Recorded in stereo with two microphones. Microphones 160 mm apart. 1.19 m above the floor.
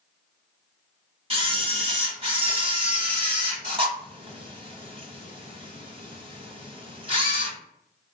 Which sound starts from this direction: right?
A camera shutter, at 1.3 s.